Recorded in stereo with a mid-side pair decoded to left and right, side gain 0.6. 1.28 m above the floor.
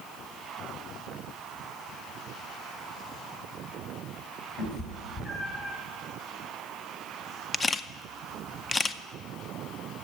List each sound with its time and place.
4.6 s a cat meowing: 55° left, 3.5 m; by 5.8 s 45° left, 3.5 m
7.5 s a camera shutter: 25° left, 0.5 m